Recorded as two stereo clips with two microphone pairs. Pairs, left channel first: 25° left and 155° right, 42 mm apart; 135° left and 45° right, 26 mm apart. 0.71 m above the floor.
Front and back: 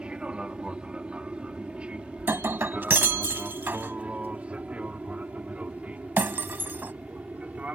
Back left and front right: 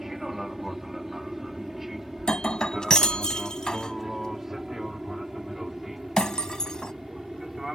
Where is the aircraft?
110° right; by 7.8 s 115° right.